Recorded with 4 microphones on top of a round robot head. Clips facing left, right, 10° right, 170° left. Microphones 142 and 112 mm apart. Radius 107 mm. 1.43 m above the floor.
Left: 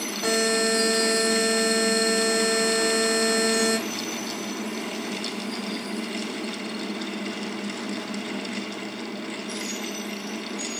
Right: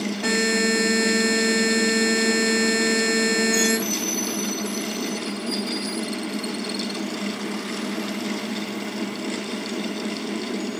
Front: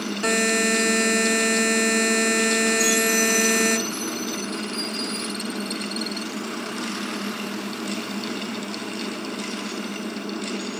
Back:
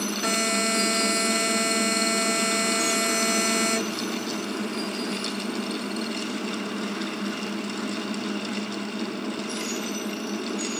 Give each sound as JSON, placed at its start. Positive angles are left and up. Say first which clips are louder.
{"t": 0.2, "sound": "a buzzer", "louder": "even, front 5 dB", "azimuth_deg": 10, "distance_m": 1.1}